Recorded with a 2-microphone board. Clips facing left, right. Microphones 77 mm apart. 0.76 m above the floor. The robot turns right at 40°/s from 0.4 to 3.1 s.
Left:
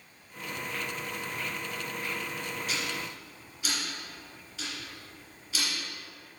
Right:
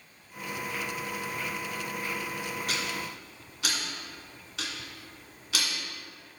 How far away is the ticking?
About 1.8 m.